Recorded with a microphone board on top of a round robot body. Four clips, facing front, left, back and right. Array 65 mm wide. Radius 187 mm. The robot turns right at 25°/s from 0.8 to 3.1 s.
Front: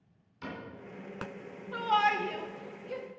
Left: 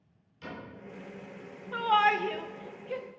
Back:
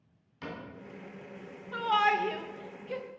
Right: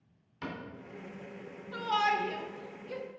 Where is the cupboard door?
105° right, 2.5 m.